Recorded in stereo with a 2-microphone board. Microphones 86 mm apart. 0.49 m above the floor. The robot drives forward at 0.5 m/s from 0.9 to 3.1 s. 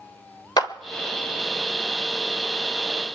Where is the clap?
50° left (ahead or behind), 1.1 m.